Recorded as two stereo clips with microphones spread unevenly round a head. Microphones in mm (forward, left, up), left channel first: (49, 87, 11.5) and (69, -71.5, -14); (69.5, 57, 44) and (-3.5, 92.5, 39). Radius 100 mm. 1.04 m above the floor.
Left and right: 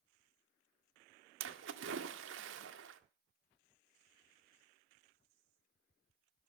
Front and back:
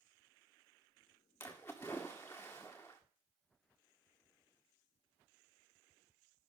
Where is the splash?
105° right, 1.6 m.